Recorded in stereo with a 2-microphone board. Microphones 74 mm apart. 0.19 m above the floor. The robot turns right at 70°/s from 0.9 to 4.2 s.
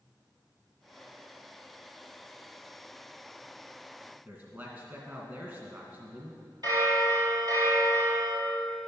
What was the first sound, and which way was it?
A man speaking, 25° right (ahead or behind).